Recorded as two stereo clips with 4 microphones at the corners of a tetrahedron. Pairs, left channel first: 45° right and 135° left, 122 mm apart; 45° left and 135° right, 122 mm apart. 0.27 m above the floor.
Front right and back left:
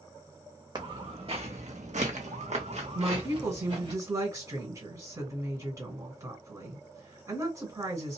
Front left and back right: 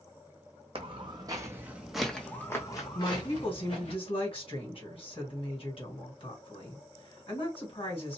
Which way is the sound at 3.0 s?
75° left.